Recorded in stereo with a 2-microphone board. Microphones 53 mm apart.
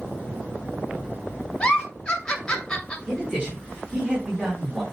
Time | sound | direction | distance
1.6 | a giggle | 15° left (ahead or behind) | 2.0 m
3.1 | a man speaking | 20° right (ahead or behind) | 4.5 m